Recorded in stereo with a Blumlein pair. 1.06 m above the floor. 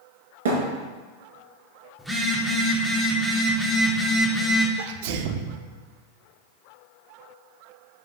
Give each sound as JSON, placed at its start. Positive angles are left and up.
{"t": 0.5, "sound": "a thud", "azimuth_deg": -60, "distance_m": 3.0}
{"t": 2.0, "sound": "a phone buzzing", "azimuth_deg": 0, "distance_m": 1.7}
{"t": 4.8, "sound": "a sneeze", "azimuth_deg": -50, "distance_m": 0.9}